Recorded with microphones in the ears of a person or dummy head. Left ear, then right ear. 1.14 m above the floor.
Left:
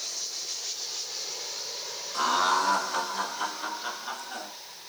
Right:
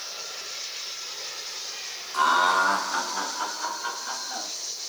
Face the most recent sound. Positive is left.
turn(degrees=-20)  # may be behind; listen again after turning